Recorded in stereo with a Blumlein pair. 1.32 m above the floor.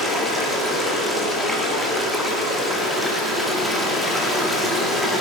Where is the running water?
Straight ahead, 1.8 m.